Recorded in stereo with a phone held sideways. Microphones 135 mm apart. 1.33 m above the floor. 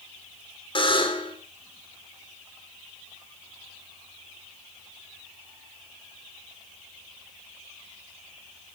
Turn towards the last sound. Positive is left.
turn(degrees=40)  # may be behind; listen again after turning